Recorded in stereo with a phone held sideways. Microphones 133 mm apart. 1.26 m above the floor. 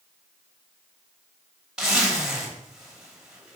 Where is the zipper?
5° right (ahead or behind), 2.5 m.